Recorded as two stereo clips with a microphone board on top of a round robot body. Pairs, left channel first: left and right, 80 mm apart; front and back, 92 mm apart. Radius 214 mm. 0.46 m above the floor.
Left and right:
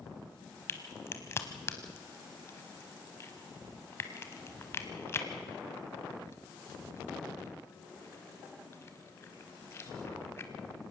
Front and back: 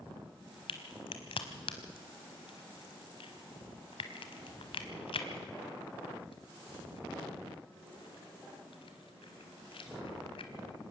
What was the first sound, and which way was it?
A crack, 30° left.